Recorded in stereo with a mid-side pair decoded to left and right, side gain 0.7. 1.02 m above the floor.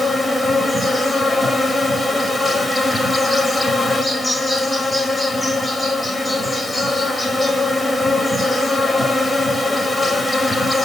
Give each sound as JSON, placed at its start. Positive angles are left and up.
{"t": 0.0, "sound": "an insect", "azimuth_deg": 5, "distance_m": 1.9}